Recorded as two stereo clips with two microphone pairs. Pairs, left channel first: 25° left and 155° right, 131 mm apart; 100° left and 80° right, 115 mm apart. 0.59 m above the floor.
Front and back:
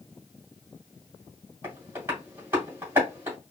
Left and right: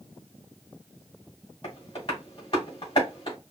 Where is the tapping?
135° left, 2.5 m.